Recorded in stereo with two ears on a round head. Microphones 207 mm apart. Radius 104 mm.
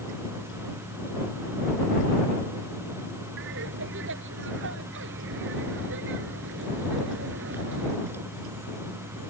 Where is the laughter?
55° right (ahead or behind).